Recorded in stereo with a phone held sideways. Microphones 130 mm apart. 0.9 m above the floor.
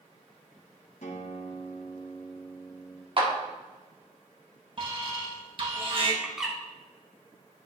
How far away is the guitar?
About 1.8 m.